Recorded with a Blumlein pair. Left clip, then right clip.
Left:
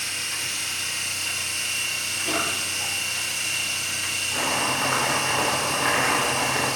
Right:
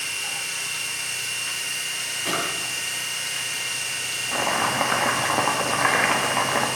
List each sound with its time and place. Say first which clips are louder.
0.0 s a machine running: even; 10° left, 5 m
2.2 s a drawer: even; 50° right, 4.5 m
4.3 s chopping: right 3 dB; 45° right, 1.4 m